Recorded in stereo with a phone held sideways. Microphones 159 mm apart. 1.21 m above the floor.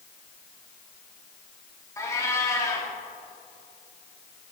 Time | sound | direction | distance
2.0 | a cat meowing | 20° left (ahead or behind) | 1.3 m